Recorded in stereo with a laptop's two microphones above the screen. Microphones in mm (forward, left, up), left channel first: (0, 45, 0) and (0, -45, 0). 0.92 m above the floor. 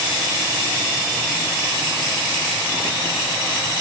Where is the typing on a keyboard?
No typing on a keyboard in this recording.